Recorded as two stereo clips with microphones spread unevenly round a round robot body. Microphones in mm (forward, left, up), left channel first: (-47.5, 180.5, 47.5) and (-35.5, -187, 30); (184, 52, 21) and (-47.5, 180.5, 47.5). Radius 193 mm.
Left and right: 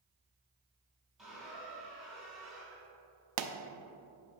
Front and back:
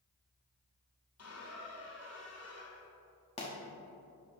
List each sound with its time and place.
1.2 s a squeak: straight ahead, 2 m
3.4 s a pop: 95° right, 0.7 m